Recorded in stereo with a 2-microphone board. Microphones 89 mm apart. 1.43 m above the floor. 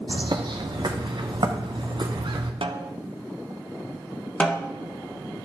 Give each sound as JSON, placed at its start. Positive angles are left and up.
{"t": 0.1, "sound": "a bird", "side_deg": -60, "distance_m": 0.9}
{"t": 2.6, "sound": "a snare drum", "side_deg": -85, "distance_m": 0.6}
{"t": 4.4, "sound": "a snare drum", "side_deg": 15, "distance_m": 1.1}